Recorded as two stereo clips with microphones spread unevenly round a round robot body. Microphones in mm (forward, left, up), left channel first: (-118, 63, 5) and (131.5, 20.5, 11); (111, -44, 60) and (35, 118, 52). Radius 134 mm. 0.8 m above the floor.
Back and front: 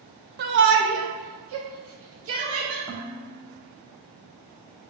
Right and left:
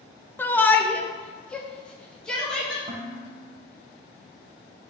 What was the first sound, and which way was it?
A shout, 15° left.